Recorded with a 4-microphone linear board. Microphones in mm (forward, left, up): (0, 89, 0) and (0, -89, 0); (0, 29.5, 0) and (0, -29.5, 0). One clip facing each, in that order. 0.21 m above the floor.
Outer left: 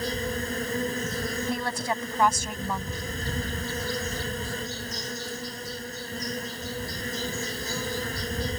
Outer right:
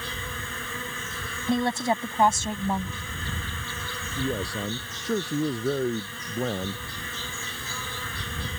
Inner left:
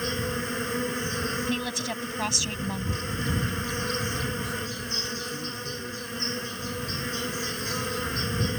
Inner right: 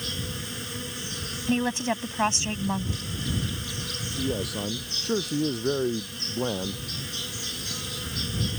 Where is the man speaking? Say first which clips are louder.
Outer right 4 dB, inner right 2 dB; 75° right (ahead or behind).